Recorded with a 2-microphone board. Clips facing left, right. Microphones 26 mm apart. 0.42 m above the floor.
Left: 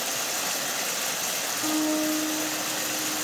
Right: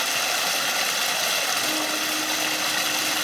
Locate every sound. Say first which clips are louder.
0.0 s running water: right 6 dB; 65° right (ahead or behind), 0.8 m
1.6 s a guitar: even; 75° left (ahead or behind), 5 m